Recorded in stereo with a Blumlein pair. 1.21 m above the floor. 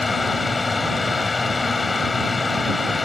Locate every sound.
0.0 s a fan: 10° left